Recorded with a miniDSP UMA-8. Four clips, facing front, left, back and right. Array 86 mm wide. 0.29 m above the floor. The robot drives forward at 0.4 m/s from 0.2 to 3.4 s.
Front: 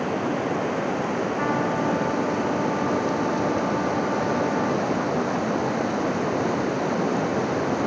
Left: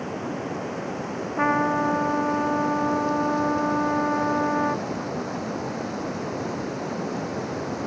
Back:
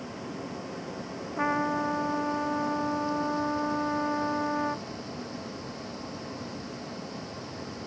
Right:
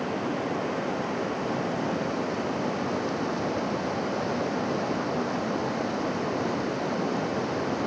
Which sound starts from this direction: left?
A trumpet, at 1.4 s.